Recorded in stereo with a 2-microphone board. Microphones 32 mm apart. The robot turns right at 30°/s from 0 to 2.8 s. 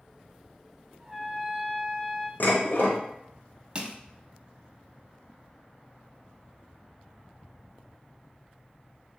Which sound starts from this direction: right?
Crushing, at 3.8 s.